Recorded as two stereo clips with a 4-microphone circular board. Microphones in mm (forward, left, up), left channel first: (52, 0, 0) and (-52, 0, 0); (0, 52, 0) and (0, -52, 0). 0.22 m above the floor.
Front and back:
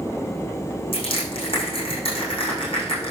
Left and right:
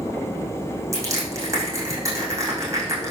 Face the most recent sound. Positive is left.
turn(degrees=-30)